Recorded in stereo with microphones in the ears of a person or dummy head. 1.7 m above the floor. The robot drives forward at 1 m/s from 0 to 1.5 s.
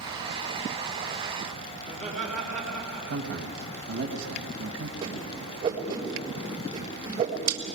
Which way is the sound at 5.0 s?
25° right (ahead or behind).